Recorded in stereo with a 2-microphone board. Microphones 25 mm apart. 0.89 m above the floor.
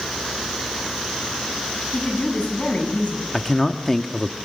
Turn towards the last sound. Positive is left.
turn(degrees=10)  # may be behind; listen again after turning